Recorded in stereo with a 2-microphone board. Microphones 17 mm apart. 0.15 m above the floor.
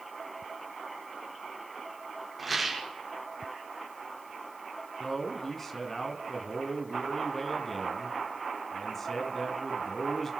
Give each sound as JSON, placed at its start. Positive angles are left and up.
{"t": 2.4, "sound": "a rattle", "side_deg": 0, "distance_m": 5.5}
{"t": 5.0, "sound": "a man speaking", "side_deg": 15, "distance_m": 1.7}